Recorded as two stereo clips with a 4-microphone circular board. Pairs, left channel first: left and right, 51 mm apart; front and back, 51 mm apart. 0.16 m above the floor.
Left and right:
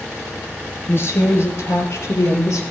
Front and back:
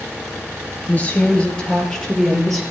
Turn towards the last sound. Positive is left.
turn(degrees=90)